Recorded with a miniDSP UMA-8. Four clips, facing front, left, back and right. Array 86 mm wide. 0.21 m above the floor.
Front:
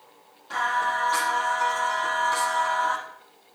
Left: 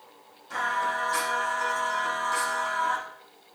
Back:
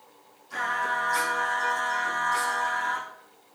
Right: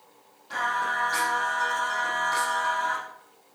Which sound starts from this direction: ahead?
Singing, at 0.5 s.